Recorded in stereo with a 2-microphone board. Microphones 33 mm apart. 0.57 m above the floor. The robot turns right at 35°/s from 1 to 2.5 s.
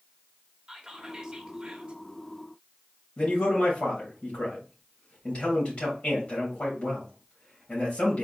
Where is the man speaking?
45° left (ahead or behind), 3 m.